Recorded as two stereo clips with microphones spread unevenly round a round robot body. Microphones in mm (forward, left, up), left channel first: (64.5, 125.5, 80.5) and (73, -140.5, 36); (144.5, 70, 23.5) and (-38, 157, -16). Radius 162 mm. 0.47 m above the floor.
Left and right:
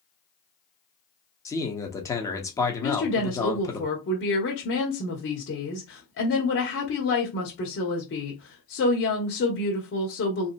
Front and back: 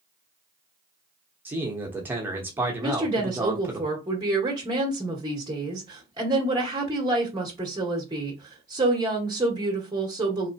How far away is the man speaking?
About 0.9 m.